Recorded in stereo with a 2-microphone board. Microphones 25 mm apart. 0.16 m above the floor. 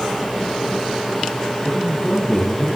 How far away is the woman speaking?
About 3 m.